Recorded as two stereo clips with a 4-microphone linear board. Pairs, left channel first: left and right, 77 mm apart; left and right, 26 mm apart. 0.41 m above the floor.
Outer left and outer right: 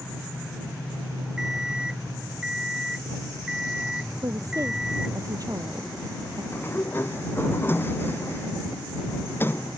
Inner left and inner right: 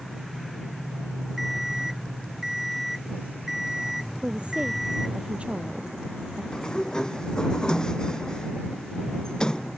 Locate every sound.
1.4 s an alarm clock: 10° right (ahead or behind)
4.2 s a woman speaking: 50° right (ahead or behind)
6.5 s a sliding door: 30° left (ahead or behind)